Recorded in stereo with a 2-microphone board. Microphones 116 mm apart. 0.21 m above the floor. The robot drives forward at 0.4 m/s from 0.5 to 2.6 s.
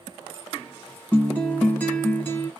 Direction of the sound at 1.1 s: 15° left (ahead or behind).